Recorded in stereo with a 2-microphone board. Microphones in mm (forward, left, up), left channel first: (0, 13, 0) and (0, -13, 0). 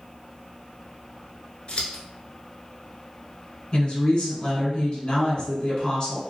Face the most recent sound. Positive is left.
turn(degrees=35)  # may be behind; listen again after turning